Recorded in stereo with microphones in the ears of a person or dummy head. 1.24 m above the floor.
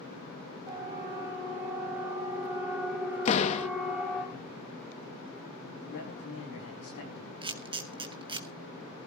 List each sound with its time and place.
0.7 s a siren: 30° right (ahead or behind), 5 m; by 4.2 s 5° right (ahead or behind), 5.5 m
3.2 s a door slam: 40° left (ahead or behind), 1.0 m
5.8 s a man speaking: 40° left (ahead or behind), 8 m
7.4 s a camera shutter: 30° right (ahead or behind), 0.9 m